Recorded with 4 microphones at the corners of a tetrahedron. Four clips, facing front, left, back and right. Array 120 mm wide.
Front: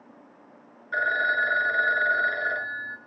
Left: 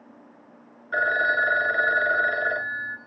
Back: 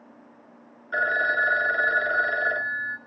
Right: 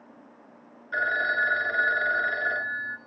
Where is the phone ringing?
125° left, 0.8 m.